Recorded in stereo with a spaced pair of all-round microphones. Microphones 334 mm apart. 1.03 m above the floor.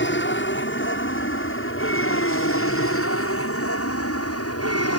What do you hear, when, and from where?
0.0 s an aircraft: 35° left (ahead or behind); by 5.0 s 45° left (ahead or behind)